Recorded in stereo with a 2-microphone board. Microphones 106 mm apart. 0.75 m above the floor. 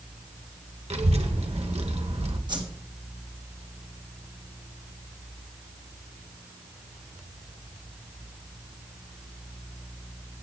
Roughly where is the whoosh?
Right.